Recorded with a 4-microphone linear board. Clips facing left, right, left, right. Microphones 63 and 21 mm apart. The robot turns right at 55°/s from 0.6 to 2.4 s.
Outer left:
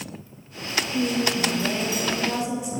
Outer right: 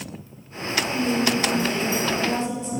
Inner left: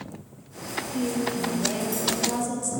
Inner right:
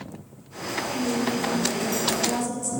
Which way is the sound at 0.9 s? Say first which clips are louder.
Outer right 1 dB, inner right 1 dB; 90° left.